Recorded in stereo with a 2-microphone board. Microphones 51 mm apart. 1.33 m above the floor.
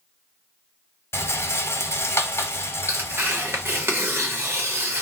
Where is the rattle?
60° left (ahead or behind), 0.9 m.